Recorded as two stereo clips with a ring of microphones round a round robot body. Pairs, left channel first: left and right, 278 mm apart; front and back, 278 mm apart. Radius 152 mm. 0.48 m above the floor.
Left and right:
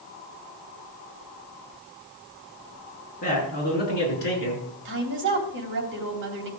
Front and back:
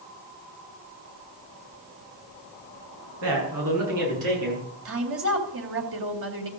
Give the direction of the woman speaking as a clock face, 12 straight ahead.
5 o'clock.